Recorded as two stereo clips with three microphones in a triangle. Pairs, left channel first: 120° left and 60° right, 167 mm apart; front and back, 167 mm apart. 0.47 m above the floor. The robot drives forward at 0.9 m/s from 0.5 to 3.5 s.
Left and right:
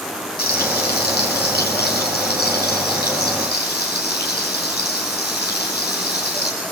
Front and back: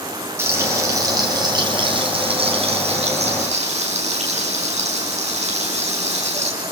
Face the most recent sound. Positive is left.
turn(degrees=135)